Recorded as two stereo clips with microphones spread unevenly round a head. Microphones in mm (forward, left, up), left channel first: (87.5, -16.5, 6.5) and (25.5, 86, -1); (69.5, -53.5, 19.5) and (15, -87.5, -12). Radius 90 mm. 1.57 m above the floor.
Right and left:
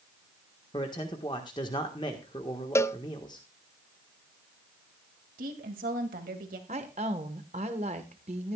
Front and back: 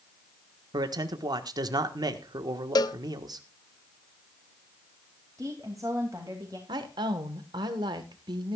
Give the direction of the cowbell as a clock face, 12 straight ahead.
12 o'clock.